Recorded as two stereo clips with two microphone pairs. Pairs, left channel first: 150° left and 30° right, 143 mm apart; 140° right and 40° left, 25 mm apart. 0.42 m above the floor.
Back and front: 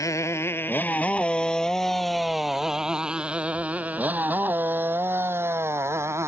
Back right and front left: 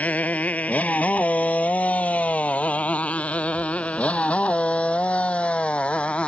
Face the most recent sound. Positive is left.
turn(degrees=-100)